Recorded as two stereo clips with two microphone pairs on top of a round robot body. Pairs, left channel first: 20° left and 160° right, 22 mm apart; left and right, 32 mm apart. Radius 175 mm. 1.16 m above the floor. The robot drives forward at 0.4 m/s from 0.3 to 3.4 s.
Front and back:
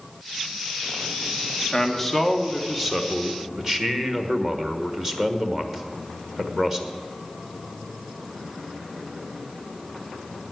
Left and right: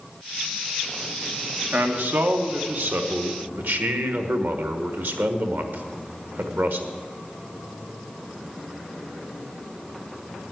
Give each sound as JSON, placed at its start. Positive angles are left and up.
{"t": 1.7, "sound": "a man speaking", "azimuth_deg": -60, "distance_m": 1.5}